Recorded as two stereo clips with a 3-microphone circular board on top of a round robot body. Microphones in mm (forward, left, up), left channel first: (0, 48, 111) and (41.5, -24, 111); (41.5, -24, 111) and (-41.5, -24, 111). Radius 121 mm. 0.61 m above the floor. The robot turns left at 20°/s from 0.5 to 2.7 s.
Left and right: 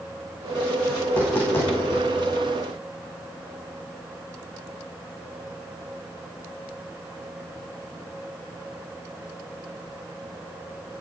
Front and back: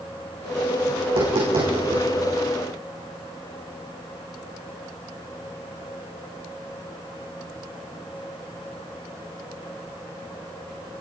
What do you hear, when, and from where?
1.0 s tapping: 165° right, 9 m; by 2.0 s 175° left, 9 m